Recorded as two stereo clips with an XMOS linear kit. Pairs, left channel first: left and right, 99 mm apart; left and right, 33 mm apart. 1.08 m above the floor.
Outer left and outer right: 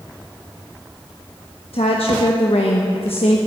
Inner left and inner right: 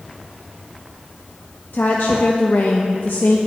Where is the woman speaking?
70° left (ahead or behind), 1.1 m.